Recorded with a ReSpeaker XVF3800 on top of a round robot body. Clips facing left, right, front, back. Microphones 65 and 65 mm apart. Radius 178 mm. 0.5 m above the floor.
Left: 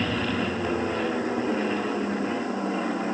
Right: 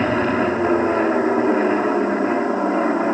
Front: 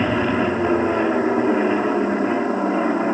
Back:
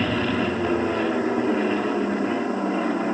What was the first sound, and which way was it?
An aircraft, 60° right.